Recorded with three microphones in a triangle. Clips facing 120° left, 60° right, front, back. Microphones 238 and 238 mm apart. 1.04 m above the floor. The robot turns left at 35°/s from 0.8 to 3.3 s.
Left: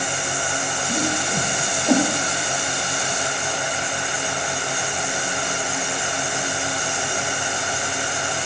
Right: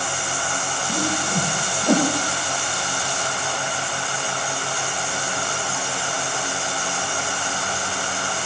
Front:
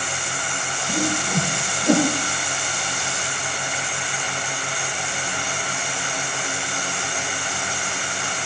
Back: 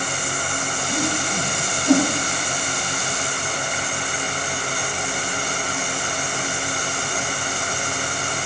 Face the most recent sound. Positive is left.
turn(degrees=-40)